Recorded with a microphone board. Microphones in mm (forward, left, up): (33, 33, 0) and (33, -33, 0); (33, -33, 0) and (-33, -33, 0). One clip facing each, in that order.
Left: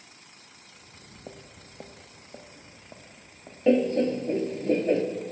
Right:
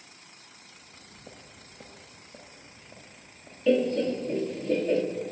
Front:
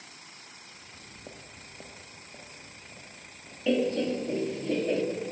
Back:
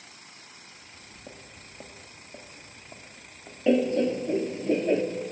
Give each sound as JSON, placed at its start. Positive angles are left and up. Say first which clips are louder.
{"t": 0.7, "sound": "footsteps", "louder": "left 1 dB, even", "azimuth_deg": 55, "distance_m": 0.9}
{"t": 3.7, "sound": "laughter", "louder": "left 2 dB, back 4 dB", "azimuth_deg": 125, "distance_m": 0.7}